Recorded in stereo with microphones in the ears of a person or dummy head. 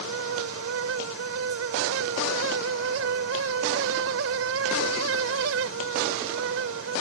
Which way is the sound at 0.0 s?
85° right.